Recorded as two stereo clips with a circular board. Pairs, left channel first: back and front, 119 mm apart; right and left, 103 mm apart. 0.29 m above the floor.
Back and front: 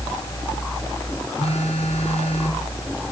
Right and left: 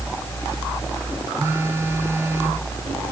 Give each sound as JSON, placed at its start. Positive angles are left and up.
{"t": 1.4, "sound": "a phone buzzing", "azimuth_deg": 155, "distance_m": 2.5}